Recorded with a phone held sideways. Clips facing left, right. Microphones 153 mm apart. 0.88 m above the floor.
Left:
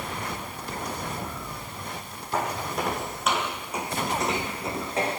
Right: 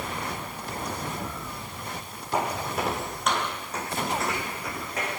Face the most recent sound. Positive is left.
turn(degrees=30)  # may be behind; listen again after turning